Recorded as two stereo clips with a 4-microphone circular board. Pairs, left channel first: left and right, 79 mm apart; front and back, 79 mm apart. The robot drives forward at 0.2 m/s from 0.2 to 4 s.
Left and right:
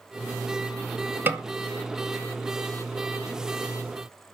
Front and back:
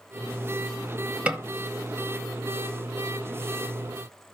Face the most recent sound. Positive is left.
turn(degrees=-145)